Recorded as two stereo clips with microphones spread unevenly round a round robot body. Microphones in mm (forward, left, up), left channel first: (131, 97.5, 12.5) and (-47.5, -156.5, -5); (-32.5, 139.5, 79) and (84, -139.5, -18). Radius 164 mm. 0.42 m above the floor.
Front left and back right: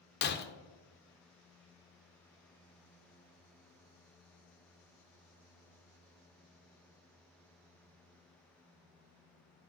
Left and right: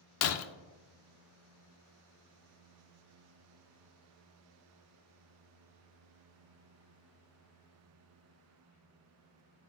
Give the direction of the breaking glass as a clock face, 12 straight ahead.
9 o'clock.